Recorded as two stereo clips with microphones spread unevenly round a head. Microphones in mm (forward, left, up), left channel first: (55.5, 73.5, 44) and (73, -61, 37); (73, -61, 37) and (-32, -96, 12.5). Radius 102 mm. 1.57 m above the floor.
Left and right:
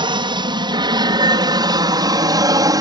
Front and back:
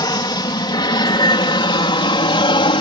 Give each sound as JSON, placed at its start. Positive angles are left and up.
{"t": 0.0, "sound": "an aircraft", "azimuth_deg": -30}